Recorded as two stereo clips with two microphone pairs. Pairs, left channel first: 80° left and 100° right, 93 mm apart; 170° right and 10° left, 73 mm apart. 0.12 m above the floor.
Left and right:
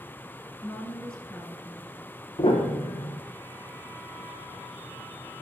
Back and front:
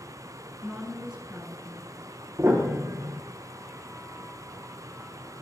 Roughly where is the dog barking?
No dog barking in this recording.